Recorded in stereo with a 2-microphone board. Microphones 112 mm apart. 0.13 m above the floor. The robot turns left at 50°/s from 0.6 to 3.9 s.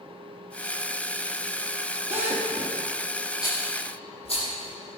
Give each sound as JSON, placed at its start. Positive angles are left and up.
{"t": 2.1, "sound": "a drill", "side_deg": -60, "distance_m": 3.5}
{"t": 3.4, "sound": "a rattle", "side_deg": 35, "distance_m": 6.0}